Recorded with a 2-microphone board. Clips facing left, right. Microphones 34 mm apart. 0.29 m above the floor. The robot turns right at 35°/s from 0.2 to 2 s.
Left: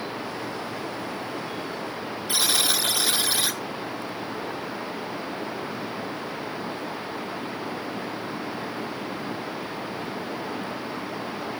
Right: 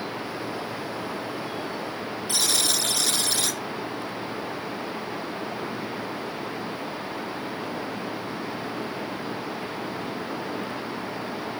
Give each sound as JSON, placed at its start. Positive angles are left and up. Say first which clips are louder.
{"t": 2.3, "sound": "a buzzer", "louder": "left 2 dB", "side_deg": 15, "distance_m": 1.0}